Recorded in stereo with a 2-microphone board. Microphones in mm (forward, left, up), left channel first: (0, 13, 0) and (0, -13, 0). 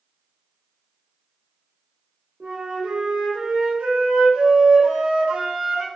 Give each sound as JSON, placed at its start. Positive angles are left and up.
{"t": 2.4, "sound": "a flute", "side_deg": -65, "distance_m": 0.9}